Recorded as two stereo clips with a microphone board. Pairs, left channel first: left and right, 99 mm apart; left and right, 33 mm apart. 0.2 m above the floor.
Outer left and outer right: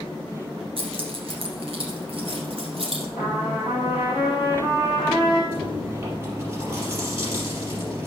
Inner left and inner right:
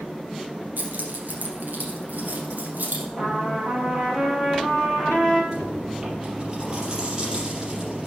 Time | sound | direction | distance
0.8 | keys jangling | 70° right (ahead or behind) | 1.8 m
3.2 | a trumpet | 20° right (ahead or behind) | 3.5 m
5.5 | chewing | 25° right (ahead or behind) | 4.5 m